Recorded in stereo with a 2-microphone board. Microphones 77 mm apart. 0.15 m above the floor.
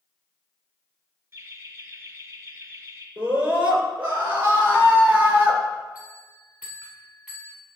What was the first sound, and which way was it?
Laughter, 35° right (ahead or behind).